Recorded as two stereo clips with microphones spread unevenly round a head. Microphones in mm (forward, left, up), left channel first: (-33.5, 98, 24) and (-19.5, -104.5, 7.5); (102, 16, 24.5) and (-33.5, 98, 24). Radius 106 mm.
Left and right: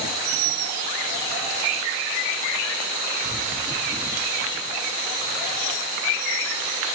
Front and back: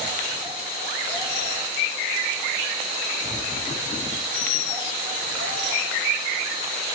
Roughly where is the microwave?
I don't hear a microwave.